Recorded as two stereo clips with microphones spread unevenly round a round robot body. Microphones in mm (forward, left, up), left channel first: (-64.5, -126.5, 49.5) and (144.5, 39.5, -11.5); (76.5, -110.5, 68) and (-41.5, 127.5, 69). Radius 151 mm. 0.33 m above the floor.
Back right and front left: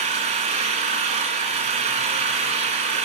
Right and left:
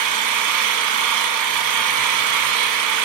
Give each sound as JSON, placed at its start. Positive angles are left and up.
{"t": 0.0, "sound": "an engine running", "azimuth_deg": 110, "distance_m": 0.8}